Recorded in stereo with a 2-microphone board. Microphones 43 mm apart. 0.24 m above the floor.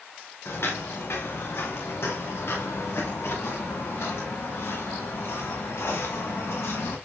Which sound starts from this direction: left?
Footsteps, at 0.5 s.